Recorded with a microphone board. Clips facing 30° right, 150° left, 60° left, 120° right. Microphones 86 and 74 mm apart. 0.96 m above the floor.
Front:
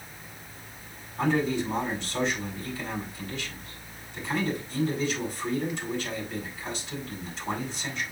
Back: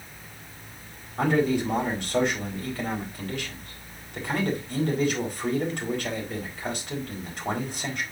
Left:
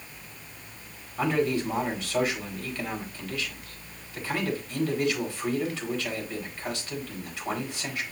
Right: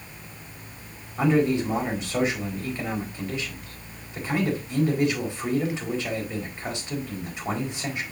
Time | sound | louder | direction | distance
1.2 | a man speaking | back 3 dB, right 4 dB | 170° left | 4.5 m